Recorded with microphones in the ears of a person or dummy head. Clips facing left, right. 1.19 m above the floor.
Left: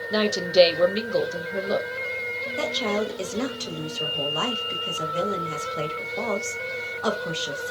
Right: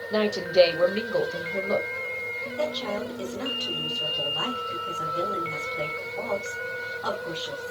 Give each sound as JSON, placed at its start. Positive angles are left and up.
{"t": 0.1, "sound": "a woman speaking", "side_deg": 20, "distance_m": 0.6}
{"t": 2.6, "sound": "a woman speaking", "side_deg": 75, "distance_m": 1.2}